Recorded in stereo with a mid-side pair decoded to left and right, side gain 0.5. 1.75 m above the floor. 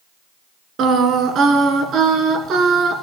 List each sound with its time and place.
0.8 s singing: 65° right, 1.6 m